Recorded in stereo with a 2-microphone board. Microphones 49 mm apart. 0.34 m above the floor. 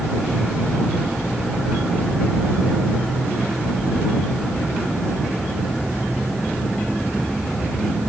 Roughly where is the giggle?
No giggle in this recording.